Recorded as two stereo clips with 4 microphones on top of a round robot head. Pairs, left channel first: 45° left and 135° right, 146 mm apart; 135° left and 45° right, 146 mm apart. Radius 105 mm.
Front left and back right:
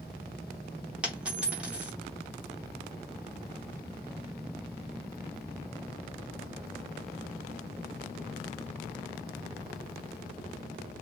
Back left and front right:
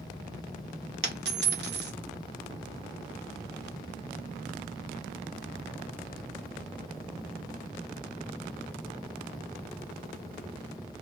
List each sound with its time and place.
1.0 s a dropped coin: 50° right, 0.6 m